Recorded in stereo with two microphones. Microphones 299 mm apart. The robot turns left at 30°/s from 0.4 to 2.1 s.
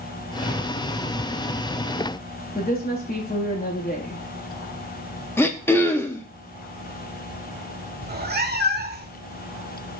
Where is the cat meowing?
35° right (ahead or behind), 0.5 m.